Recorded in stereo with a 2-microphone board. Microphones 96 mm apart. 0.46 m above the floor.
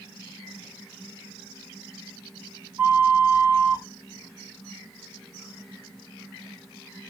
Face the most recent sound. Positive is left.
turn(degrees=-20)  # may be behind; listen again after turning